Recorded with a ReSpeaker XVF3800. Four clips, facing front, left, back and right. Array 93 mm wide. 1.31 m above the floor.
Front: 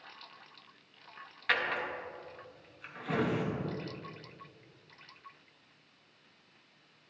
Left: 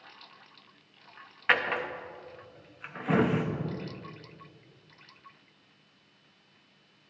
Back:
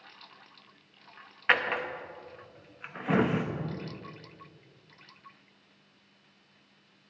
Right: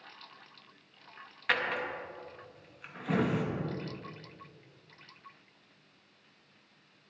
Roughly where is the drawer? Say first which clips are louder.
Left 4 dB, back 5 dB; behind left.